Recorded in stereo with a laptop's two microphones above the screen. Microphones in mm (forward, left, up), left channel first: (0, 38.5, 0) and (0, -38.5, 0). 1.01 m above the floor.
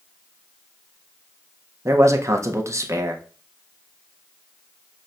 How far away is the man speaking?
About 0.6 m.